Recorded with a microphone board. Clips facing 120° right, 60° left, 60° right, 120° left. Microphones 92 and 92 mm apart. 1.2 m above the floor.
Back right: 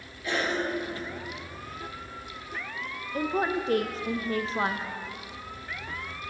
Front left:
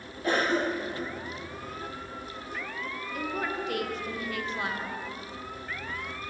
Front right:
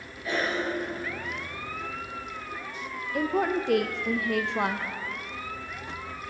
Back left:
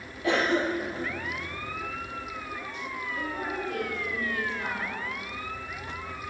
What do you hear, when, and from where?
0.2 s a cough: 105° left, 1.4 m
3.1 s a woman speaking: 65° right, 0.5 m